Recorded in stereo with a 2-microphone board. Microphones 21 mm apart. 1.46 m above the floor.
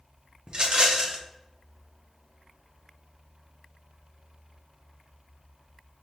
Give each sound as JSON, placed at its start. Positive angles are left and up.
{"t": 0.5, "sound": "a rattle", "side_deg": -40, "distance_m": 0.7}